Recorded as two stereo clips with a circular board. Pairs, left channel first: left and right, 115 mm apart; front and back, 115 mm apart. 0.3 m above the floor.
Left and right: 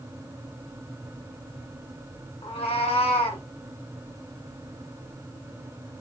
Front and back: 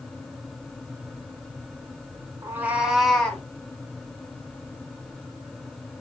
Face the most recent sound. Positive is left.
turn(degrees=75)